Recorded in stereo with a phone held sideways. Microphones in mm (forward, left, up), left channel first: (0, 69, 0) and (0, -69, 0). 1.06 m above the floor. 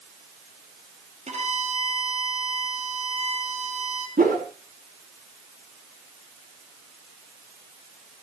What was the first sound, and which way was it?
A violin, 55° right (ahead or behind).